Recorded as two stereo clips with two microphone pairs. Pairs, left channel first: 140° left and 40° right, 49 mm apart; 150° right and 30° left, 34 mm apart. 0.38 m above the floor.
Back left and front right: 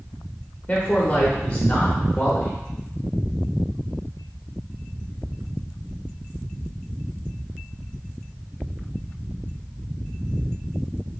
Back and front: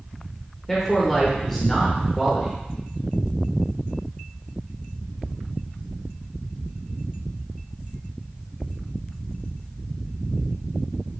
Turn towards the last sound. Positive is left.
turn(degrees=130)